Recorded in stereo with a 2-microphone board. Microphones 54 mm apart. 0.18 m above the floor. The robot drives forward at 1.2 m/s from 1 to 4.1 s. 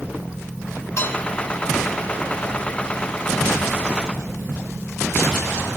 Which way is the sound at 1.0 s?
55° left (ahead or behind).